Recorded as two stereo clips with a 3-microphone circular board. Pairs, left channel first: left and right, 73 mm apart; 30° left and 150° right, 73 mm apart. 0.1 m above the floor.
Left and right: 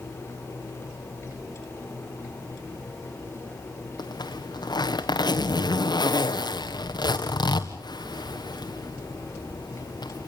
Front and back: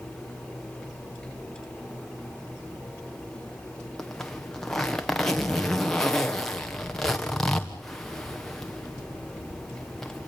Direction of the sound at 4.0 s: 115° left.